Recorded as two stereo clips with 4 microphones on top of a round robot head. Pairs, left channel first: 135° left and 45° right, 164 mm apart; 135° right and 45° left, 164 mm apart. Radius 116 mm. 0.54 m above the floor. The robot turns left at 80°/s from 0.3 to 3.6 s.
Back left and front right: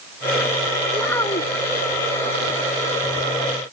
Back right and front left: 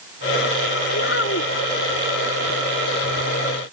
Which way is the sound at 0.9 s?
130° right.